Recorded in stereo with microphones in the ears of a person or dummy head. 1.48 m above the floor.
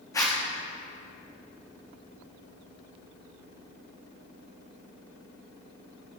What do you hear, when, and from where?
0.1 s a zipper: 20° left (ahead or behind), 2 m